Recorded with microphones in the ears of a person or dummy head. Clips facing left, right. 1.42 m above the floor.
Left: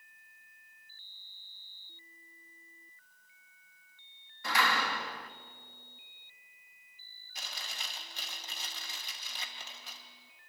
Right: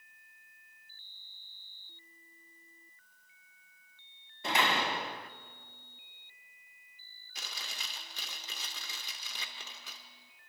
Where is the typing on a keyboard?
No typing on a keyboard in this recording.